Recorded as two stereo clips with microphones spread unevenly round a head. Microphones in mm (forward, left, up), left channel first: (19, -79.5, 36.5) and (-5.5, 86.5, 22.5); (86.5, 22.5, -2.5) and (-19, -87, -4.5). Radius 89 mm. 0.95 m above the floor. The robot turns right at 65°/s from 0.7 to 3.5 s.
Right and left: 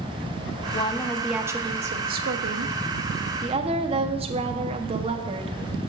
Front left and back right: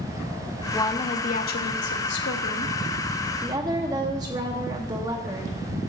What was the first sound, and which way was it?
A woman speaking, 25° right.